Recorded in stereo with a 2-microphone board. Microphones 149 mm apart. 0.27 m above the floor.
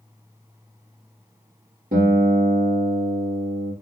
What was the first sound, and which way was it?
A guitar, 80° right.